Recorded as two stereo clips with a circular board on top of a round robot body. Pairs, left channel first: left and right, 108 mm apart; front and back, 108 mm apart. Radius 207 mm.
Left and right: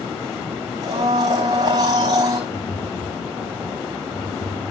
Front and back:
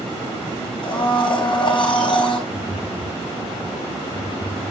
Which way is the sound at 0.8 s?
40° right.